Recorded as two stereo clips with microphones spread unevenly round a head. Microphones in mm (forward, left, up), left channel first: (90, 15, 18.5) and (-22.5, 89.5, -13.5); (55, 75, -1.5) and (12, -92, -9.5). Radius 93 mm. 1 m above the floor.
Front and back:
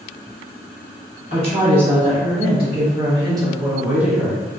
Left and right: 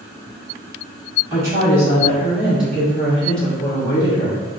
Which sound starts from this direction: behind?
A woman speaking, at 1.3 s.